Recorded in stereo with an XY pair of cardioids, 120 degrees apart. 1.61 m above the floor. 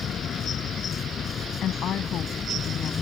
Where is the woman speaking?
60° left.